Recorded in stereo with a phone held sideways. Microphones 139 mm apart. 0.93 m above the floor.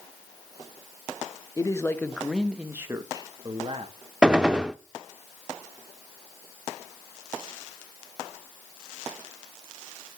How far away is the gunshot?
About 0.6 m.